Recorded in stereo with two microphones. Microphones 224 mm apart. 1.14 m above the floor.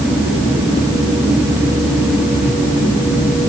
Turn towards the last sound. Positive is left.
No sound to turn to.